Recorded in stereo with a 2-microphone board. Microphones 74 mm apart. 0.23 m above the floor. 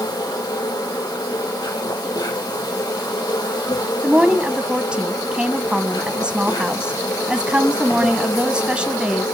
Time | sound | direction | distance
0.0 | an insect | 80° left | 7.5 m
4.0 | a woman speaking | 15° right (ahead or behind) | 1.4 m